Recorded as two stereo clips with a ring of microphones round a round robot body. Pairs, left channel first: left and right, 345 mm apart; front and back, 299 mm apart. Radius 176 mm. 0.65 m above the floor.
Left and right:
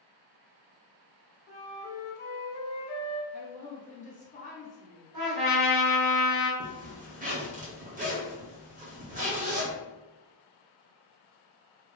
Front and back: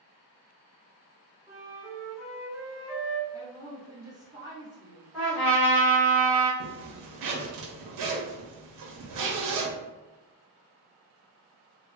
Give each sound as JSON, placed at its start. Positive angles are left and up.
{"t": 1.5, "sound": "a flute", "azimuth_deg": 115, "distance_m": 1.2}
{"t": 3.3, "sound": "a woman speaking", "azimuth_deg": 125, "distance_m": 1.0}
{"t": 5.1, "sound": "a trumpet", "azimuth_deg": -90, "distance_m": 1.5}
{"t": 6.6, "sound": "a zipper", "azimuth_deg": -160, "distance_m": 0.7}